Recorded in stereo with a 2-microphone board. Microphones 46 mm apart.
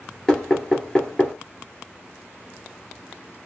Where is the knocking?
5° left (ahead or behind), 1.7 m.